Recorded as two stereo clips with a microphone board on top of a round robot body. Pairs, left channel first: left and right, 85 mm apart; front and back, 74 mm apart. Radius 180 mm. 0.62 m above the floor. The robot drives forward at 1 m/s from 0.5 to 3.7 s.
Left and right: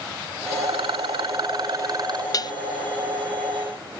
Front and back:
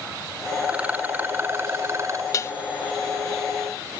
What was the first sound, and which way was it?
A rattle, 105° right.